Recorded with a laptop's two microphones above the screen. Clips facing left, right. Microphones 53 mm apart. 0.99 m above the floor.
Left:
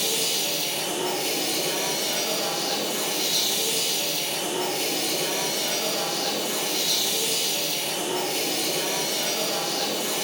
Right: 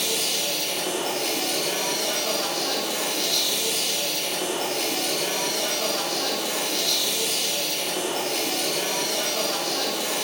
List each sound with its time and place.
0.0 s a machine running: 60° right (ahead or behind), 0.8 m